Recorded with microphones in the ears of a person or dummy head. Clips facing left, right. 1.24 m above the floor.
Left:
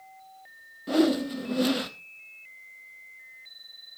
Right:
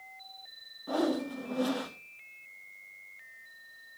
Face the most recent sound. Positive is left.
turn(degrees=35)  # may be behind; listen again after turning